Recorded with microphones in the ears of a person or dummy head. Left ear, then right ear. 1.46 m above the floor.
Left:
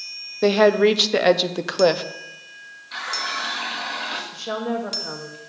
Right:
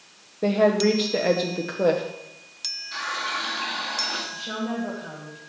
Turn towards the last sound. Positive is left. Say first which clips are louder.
# left 4 dB
turn(degrees=75)  # may be behind; listen again after turning